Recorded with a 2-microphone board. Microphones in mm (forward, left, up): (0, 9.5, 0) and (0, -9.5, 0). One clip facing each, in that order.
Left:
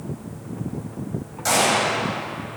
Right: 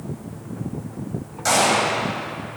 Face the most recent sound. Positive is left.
turn(degrees=-5)  # may be behind; listen again after turning